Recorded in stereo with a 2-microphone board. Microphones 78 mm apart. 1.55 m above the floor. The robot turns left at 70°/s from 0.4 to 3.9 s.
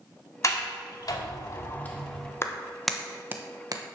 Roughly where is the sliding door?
Left.